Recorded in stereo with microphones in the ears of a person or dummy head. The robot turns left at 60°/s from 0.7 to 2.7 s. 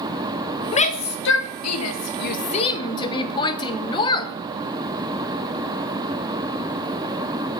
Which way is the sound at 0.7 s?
35° left (ahead or behind).